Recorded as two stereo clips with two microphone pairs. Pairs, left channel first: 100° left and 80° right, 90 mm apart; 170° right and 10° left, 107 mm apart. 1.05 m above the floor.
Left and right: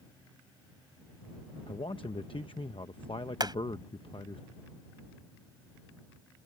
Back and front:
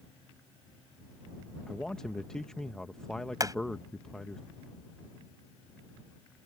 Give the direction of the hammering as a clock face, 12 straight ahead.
1 o'clock.